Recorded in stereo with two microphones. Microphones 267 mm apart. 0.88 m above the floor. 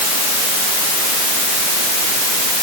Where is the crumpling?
No crumpling in this recording.